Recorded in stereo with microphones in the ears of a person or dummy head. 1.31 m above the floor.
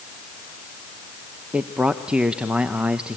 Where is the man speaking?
5° right (ahead or behind), 0.8 m.